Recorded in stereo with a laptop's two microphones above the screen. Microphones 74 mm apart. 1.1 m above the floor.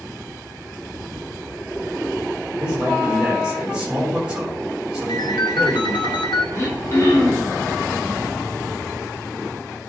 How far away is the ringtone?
About 1.6 m.